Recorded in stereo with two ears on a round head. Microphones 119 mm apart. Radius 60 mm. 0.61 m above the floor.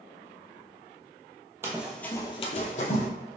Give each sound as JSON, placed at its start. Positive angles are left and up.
{"t": 1.6, "sound": "running footsteps", "side_deg": -20, "distance_m": 0.9}